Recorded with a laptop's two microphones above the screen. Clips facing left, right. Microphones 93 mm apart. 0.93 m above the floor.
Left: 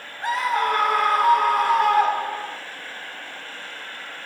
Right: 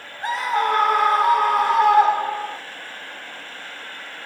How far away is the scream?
About 0.8 m.